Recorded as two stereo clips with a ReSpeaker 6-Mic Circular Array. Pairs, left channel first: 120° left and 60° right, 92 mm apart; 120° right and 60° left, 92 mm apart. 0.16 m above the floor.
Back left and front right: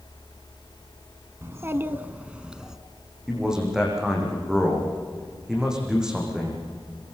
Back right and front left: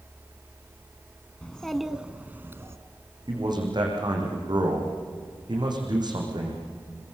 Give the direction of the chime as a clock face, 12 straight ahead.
No chime in this recording.